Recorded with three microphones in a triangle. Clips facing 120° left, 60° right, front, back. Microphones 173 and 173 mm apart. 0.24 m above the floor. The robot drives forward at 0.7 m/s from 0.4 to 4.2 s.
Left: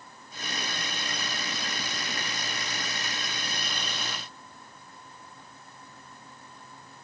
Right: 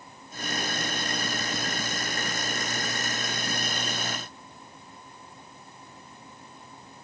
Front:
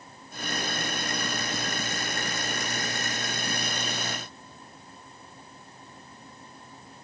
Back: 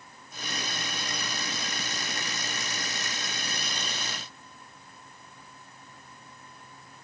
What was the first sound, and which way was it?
Only background noise.